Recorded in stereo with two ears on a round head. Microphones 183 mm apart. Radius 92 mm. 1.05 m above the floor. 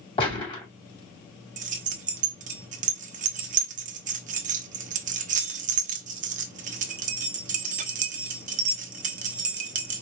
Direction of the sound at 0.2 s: 25° left (ahead or behind).